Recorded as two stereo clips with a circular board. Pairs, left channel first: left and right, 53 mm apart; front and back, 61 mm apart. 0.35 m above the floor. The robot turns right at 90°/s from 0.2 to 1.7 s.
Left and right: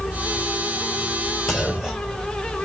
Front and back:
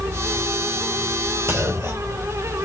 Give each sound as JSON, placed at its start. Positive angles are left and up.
{"t": 1.5, "sound": "a clunk", "azimuth_deg": 175, "distance_m": 2.0}